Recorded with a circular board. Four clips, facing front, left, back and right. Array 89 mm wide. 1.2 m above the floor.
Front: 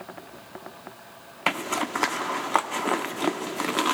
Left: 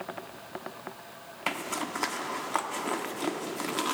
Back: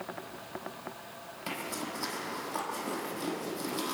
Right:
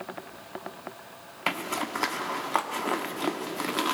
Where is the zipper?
5° right, 1.3 m.